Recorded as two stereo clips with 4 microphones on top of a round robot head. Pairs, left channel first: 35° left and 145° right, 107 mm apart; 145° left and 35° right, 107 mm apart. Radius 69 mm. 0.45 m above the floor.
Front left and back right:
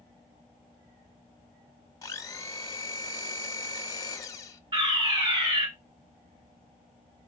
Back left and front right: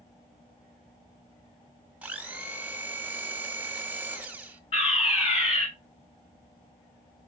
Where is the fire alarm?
170° left, 5 m.